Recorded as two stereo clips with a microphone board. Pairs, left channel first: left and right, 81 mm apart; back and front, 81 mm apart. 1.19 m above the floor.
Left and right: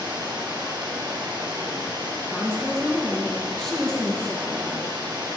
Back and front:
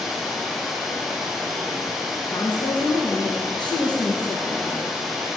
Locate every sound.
0.0 s running water: 90° right, 3 m
2.3 s a woman speaking: 170° left, 1.2 m